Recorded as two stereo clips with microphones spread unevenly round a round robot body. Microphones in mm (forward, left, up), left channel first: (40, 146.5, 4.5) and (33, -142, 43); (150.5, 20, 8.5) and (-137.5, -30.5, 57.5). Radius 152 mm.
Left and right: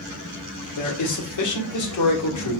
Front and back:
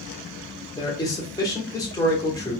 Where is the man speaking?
85° left, 1.6 m.